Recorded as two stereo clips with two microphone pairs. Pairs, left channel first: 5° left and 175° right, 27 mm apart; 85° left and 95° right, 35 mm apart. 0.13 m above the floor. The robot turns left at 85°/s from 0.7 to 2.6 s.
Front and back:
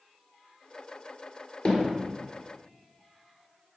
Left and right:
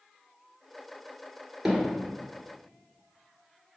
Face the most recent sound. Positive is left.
turn(degrees=-100)